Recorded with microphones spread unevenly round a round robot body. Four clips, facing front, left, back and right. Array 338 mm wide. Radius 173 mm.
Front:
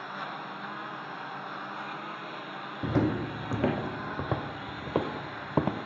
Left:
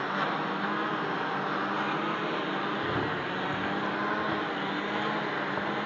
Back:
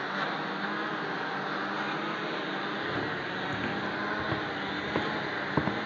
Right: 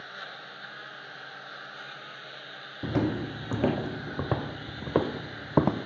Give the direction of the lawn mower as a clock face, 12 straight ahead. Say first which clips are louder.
Left 14 dB, back 5 dB; 8 o'clock.